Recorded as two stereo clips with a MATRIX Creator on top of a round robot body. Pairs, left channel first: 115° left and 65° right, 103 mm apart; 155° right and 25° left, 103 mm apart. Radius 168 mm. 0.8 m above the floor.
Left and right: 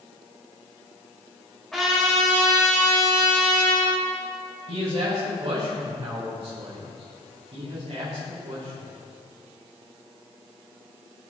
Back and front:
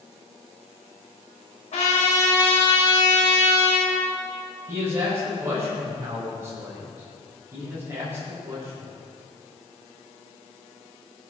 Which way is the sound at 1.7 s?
160° right.